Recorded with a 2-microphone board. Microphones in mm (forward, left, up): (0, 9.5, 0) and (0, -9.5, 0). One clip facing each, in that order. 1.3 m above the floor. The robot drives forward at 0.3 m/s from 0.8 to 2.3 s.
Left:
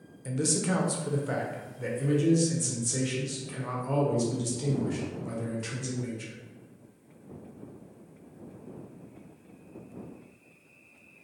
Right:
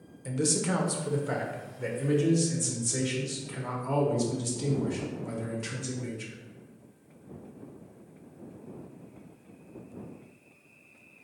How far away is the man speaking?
About 0.7 m.